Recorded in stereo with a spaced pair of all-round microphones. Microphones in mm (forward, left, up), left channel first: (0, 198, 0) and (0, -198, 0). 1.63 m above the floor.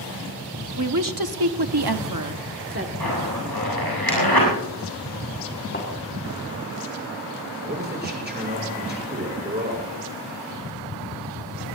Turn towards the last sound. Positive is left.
turn(degrees=-25)  # may be behind; listen again after turning